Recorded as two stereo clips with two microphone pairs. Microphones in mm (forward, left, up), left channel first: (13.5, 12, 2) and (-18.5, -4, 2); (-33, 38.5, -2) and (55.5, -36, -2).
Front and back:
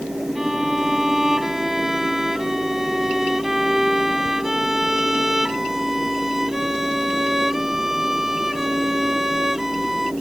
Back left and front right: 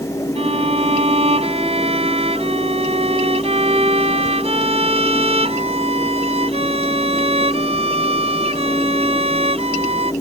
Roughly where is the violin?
Right.